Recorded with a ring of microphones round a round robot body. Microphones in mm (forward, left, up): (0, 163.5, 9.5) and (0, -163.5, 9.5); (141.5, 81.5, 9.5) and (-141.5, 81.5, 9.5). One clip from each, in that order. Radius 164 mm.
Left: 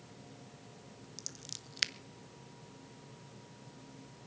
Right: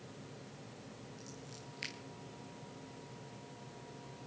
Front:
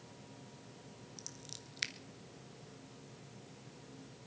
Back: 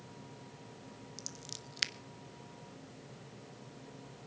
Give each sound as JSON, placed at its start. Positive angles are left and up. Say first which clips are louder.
{"t": 1.2, "sound": "scissors", "louder": "left 5 dB, back 3 dB", "azimuth_deg": 120, "distance_m": 0.9}